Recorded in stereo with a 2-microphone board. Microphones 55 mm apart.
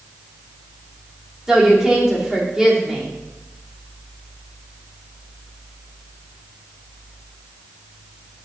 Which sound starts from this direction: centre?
A woman speaking, at 1.5 s.